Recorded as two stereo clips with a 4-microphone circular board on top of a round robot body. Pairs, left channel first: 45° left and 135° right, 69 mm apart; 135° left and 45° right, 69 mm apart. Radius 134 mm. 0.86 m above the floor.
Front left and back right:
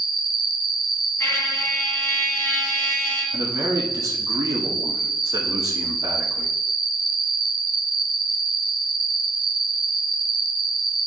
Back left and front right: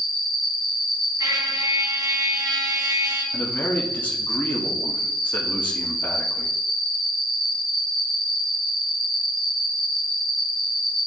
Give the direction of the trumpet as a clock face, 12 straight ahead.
12 o'clock.